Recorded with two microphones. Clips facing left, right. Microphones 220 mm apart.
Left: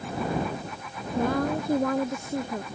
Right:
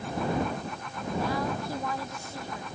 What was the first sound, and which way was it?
A woman speaking, 50° left (ahead or behind).